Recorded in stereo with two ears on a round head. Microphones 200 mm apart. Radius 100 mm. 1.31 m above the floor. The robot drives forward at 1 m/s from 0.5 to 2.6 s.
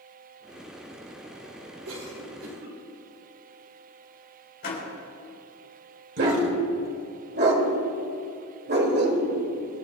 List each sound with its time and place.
1.9 s a cough: 80° right, 4.5 m; by 2.8 s 70° right (ahead or behind), 4.5 m
4.6 s a door slam: 50° left (ahead or behind), 4 m
6.2 s a dog barking: 50° right (ahead or behind), 1.8 m